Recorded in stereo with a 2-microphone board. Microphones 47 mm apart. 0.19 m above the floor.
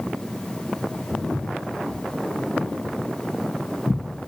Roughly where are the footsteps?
Right.